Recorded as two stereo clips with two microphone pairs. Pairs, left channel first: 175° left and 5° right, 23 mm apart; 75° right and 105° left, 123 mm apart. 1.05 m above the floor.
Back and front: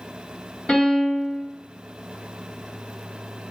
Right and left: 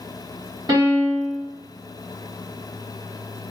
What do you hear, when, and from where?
0.7 s a piano: 160° left, 1.4 m